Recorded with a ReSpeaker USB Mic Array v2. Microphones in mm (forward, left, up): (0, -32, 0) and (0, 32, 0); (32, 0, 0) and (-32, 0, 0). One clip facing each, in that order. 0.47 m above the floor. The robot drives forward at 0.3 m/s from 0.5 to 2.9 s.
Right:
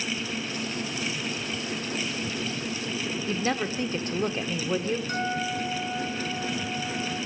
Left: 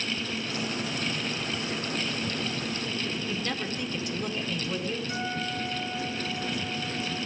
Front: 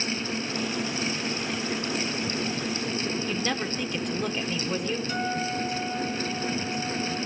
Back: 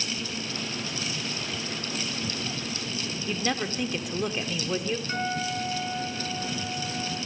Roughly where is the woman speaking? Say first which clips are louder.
Right 4 dB, even; right.